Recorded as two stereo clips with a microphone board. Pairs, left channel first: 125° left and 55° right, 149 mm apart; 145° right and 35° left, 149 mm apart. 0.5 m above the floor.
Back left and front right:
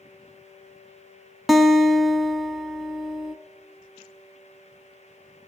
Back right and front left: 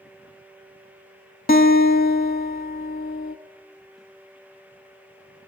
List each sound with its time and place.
1.5 s a guitar: 145° right, 0.9 m